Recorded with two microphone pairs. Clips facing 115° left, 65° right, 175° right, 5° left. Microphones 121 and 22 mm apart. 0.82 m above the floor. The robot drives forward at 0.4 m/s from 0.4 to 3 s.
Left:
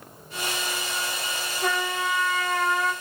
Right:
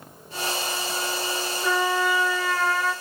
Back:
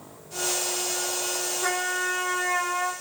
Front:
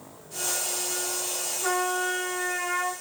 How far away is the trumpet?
About 0.7 m.